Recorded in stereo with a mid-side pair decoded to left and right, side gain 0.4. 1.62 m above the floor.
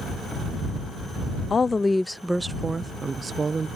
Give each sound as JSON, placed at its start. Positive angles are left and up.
{"t": 1.5, "sound": "a woman speaking", "azimuth_deg": 40}